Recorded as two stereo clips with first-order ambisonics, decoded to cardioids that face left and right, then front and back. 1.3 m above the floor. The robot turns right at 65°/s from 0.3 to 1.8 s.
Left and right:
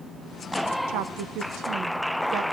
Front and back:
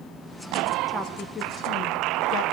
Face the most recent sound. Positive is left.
turn(degrees=-40)